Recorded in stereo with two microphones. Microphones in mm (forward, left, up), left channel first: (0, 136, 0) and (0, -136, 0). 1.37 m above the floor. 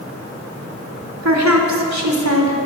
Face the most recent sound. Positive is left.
turn(degrees=-80)